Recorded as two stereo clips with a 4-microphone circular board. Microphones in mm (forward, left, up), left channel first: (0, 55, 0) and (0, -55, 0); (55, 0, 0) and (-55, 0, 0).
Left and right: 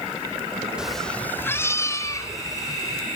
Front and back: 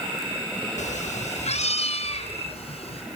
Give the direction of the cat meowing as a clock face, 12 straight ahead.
12 o'clock.